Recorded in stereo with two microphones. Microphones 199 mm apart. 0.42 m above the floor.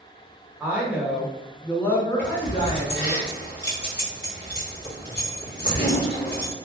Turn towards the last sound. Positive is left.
turn(degrees=65)  # may be behind; listen again after turning